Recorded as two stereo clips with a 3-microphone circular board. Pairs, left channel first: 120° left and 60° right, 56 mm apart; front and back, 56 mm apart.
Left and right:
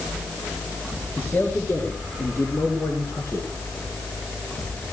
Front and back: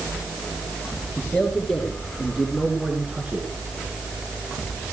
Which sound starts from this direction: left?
A man speaking, at 1.2 s.